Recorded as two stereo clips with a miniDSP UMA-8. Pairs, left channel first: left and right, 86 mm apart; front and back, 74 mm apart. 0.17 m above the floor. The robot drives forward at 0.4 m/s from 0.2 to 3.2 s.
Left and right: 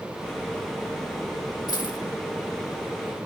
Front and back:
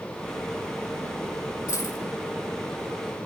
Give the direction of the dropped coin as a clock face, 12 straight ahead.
10 o'clock.